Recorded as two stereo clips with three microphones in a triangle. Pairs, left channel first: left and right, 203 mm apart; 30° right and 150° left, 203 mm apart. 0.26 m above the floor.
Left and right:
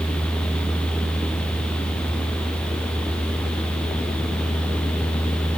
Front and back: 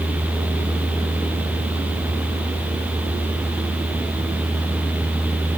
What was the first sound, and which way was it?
Only background noise.